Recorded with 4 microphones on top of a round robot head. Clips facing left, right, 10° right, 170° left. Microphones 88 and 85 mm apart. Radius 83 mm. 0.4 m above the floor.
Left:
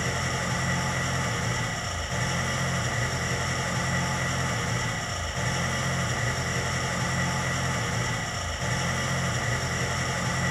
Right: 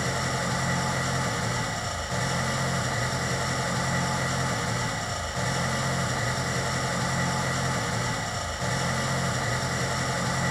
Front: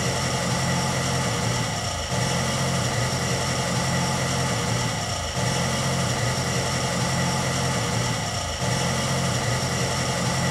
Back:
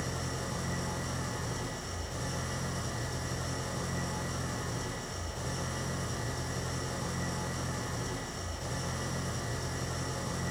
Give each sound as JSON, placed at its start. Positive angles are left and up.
{"t": 0.0, "sound": "an engine running", "azimuth_deg": -10, "distance_m": 0.9}